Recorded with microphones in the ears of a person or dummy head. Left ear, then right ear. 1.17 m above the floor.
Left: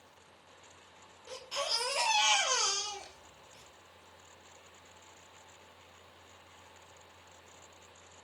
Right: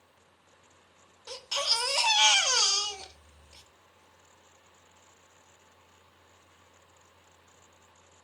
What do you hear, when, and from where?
1.3 s a baby crying: 50° right (ahead or behind), 3 m